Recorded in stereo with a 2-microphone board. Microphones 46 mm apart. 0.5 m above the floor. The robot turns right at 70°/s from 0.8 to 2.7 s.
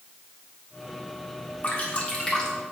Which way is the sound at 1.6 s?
35° left (ahead or behind).